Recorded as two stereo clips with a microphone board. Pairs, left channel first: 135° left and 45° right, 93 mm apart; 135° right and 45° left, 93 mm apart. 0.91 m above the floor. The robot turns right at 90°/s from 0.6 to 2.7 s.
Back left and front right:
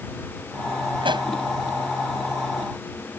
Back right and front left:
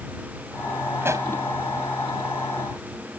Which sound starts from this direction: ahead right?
A pop, at 1.0 s.